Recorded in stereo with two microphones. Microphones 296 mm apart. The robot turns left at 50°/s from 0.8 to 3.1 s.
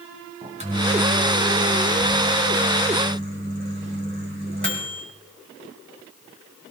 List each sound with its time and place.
0.4 s a microwave: 25° right, 2.5 m; by 5.0 s 140° right, 2.5 m